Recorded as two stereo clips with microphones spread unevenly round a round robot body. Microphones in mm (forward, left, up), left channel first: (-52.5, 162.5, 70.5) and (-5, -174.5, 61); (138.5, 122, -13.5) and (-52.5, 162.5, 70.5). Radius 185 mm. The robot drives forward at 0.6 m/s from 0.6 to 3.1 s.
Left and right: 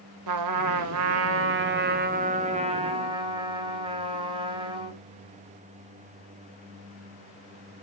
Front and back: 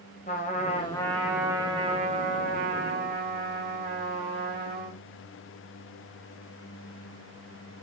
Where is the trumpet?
90° right, 0.9 m; by 5.0 s 155° right, 1.7 m.